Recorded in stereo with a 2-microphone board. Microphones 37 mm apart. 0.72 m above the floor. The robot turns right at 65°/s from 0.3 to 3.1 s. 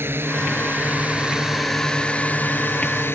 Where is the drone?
85° right; by 3.1 s 95° left.